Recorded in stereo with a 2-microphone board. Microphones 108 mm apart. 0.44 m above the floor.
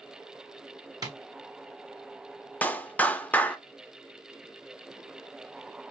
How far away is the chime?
I don't hear a chime.